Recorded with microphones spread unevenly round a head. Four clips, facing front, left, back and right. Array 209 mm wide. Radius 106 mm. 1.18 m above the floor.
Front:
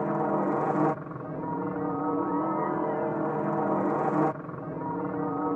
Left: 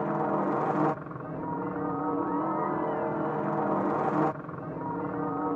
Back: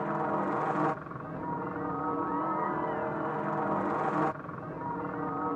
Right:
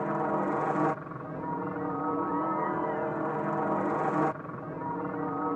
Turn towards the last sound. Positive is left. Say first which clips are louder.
# left 1 dB, front 4 dB
turn(degrees=10)